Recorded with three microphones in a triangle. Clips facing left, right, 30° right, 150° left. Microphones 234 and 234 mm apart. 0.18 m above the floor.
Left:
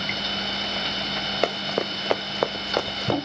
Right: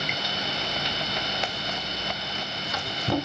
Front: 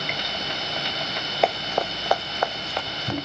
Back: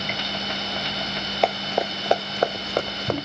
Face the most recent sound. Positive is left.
turn(degrees=120)